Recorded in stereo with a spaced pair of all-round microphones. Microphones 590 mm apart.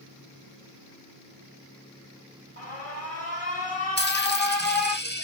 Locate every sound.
2.6 s an alarm: 65° left (ahead or behind), 3 m
4.0 s a dropped coin: 15° left (ahead or behind), 1.4 m